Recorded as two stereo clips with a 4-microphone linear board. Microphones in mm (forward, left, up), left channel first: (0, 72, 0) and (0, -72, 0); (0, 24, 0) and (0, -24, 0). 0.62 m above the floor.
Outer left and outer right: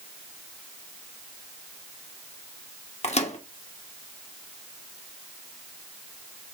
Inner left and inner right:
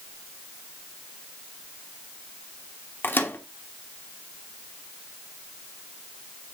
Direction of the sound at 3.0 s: 50° left (ahead or behind).